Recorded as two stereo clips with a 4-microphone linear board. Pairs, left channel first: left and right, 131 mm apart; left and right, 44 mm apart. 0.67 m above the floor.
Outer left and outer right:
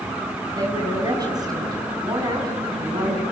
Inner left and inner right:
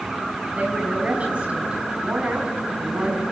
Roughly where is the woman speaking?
Right.